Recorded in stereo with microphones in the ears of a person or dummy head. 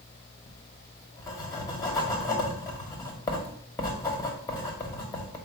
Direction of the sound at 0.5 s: 15° left (ahead or behind).